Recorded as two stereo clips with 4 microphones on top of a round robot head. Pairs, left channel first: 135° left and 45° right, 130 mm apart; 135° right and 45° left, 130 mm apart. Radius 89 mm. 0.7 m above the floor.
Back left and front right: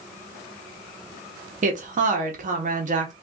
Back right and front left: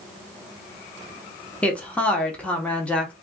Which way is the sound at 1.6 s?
55° right.